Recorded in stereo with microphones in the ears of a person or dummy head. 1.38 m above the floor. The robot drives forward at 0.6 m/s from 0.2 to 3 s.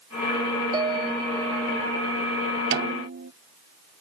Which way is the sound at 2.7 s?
60° right (ahead or behind).